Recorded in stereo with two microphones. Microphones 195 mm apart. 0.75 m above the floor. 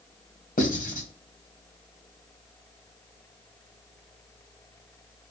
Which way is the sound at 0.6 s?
45° left (ahead or behind).